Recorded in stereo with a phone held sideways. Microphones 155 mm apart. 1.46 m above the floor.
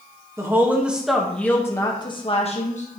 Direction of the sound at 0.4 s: 20° right (ahead or behind).